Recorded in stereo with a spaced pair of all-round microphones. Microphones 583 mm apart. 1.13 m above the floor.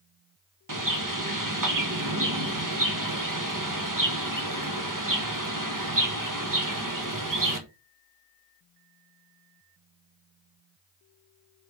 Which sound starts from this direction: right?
A bird, at 0.7 s.